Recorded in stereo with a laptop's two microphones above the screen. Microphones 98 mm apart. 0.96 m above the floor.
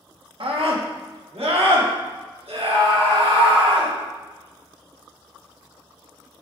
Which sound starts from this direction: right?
A scream, at 0.4 s.